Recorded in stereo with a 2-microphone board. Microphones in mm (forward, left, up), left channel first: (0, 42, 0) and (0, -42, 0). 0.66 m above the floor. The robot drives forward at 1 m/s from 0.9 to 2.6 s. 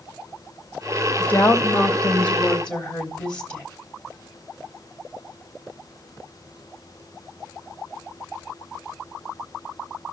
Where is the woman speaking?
20° left (ahead or behind), 2 m; by 3.6 s 10° left (ahead or behind), 3.5 m.